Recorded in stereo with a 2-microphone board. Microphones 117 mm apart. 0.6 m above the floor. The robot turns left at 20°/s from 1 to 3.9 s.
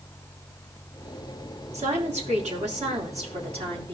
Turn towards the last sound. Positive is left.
turn(degrees=-125)